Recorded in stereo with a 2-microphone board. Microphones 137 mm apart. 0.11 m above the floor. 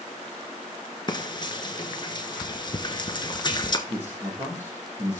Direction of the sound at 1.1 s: 35° left (ahead or behind).